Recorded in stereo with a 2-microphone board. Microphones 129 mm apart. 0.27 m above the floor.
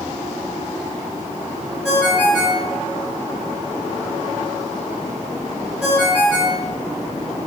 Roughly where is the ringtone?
Centre.